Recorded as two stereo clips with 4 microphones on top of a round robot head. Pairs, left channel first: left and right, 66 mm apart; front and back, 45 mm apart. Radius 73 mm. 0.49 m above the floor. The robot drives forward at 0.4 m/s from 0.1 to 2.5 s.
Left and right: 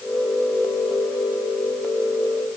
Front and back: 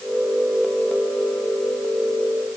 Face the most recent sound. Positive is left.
No sound to turn to.